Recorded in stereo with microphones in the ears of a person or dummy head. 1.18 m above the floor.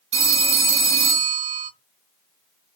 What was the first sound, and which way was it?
A phone ringing, 30° right (ahead or behind).